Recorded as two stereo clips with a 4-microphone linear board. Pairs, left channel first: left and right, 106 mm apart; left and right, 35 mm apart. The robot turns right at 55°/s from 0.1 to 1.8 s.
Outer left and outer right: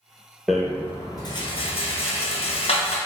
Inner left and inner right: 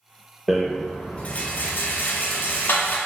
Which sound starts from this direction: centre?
A rattle, at 0.5 s.